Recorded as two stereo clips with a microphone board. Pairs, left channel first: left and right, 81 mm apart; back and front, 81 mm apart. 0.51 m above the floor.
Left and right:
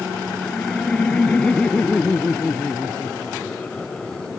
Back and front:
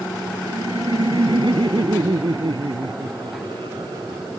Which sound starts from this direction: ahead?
Laughter, at 0.4 s.